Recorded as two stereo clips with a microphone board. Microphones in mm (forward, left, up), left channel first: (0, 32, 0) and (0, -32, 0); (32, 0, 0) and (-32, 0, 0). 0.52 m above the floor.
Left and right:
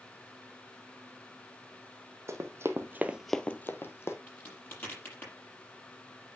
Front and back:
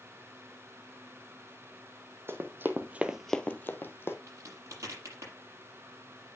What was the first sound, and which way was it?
Running footsteps, 130° right.